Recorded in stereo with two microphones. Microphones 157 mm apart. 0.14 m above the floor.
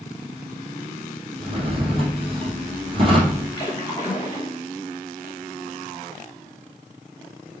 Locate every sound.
1.4 s a drawer: 35° right (ahead or behind), 2.5 m
3.6 s a splash: 25° left (ahead or behind), 3 m